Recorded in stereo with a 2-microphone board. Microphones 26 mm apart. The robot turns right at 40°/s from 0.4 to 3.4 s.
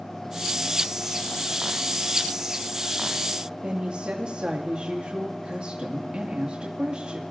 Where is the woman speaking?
40° right (ahead or behind), 2 m.